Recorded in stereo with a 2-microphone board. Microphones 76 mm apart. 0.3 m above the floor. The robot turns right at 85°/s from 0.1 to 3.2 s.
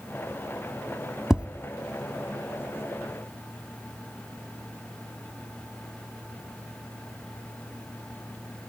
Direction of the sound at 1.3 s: 10° right (ahead or behind).